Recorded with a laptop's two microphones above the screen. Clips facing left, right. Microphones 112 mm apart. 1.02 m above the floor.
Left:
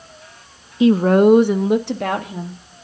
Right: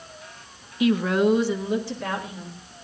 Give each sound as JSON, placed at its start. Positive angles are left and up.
{"t": 0.8, "sound": "a woman speaking", "side_deg": 30, "distance_m": 0.6}